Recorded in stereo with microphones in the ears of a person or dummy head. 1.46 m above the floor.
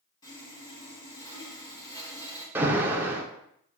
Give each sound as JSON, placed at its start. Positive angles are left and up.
{"t": 0.2, "sound": "sawing", "side_deg": 20, "distance_m": 2.5}
{"t": 2.5, "sound": "an alarm", "side_deg": -10, "distance_m": 1.0}